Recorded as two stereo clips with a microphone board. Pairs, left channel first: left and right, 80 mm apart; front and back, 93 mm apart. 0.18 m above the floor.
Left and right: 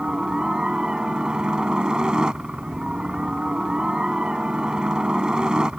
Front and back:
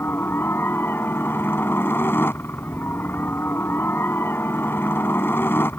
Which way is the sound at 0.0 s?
20° right.